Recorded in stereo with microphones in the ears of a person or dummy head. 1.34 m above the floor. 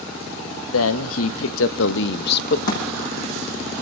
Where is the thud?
50° left (ahead or behind), 7 m.